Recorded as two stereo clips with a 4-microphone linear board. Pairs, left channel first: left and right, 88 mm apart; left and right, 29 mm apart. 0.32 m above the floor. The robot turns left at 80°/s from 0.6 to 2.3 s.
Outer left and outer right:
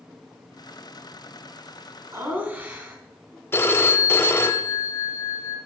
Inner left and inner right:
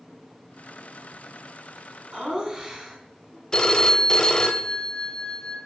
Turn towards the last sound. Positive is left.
turn(degrees=25)  # may be behind; listen again after turning